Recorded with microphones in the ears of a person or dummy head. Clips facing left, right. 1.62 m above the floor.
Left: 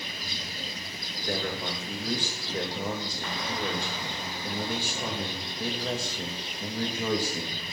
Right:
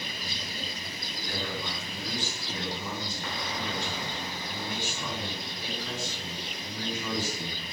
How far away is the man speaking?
About 2.0 m.